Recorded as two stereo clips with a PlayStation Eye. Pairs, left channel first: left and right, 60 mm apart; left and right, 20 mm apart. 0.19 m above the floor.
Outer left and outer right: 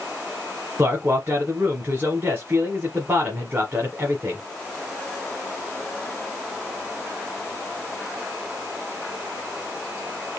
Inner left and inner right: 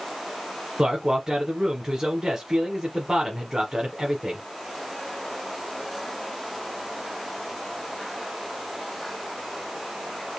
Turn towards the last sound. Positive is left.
turn(degrees=-40)  # may be behind; listen again after turning